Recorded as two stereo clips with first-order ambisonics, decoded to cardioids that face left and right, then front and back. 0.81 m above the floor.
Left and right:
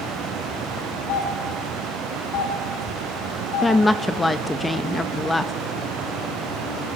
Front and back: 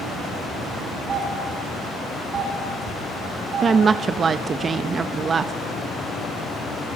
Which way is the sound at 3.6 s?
155° left.